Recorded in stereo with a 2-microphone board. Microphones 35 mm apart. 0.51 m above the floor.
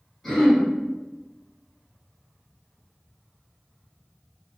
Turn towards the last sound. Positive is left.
turn(degrees=5)  # may be behind; listen again after turning